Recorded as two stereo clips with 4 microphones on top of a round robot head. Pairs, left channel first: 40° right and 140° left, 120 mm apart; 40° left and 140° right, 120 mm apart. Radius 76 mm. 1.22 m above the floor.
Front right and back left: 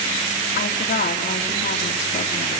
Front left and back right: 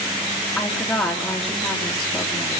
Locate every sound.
0.6 s a woman speaking: 40° right, 2.5 m